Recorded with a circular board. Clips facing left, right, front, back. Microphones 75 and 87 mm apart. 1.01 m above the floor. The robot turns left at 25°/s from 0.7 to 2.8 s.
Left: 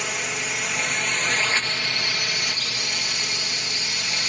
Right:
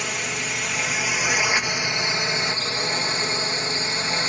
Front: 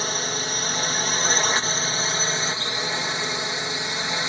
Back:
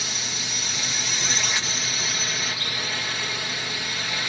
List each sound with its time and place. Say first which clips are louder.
0.0 s a drone: even, front 7 dB; straight ahead; by 4.3 s 55° right